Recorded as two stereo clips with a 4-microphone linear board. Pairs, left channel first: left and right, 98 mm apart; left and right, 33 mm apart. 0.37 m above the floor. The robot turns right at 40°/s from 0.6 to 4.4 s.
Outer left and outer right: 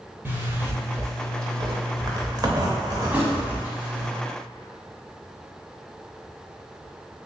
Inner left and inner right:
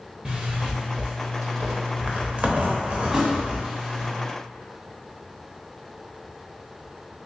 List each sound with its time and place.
0.2 s a zipper: 145° right, 0.7 m; by 4.1 s 5° right, 0.7 m
3.1 s a thud: 20° right (ahead or behind), 0.7 m; by 3.4 s 10° right (ahead or behind), 0.7 m